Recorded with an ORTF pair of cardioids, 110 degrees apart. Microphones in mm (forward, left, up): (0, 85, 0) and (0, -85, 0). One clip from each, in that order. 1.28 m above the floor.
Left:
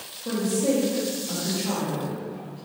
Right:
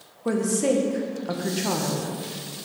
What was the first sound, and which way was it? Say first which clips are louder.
A woman speaking: right 2 dB; 55° right.